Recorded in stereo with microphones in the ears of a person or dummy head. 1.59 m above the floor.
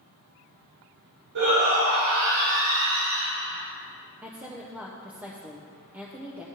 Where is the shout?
60° right (ahead or behind), 3 m; by 3.3 s 85° right, 5 m.